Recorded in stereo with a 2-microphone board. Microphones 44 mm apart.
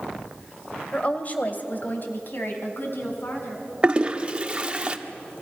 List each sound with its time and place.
0.9 s a woman speaking: 30° left (ahead or behind), 2.0 m; by 3.7 s 60° left (ahead or behind), 5.5 m
3.8 s a toilet flushing: 25° right (ahead or behind), 1.1 m